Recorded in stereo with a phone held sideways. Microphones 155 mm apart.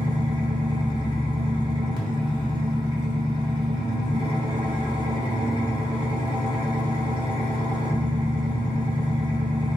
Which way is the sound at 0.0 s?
30° right (ahead or behind).